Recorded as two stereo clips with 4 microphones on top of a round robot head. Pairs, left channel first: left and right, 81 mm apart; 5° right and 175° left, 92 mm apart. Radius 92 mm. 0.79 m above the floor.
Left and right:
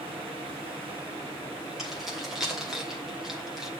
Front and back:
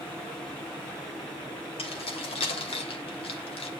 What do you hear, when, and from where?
1.8 s keys jangling: 5° right, 3 m